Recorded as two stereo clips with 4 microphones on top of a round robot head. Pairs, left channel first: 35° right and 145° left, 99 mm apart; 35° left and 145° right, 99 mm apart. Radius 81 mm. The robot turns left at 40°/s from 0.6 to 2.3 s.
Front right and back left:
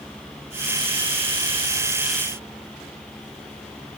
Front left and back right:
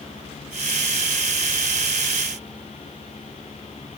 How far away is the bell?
No bell in this recording.